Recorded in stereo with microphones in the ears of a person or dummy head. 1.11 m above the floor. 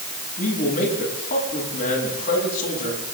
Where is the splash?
I don't hear a splash.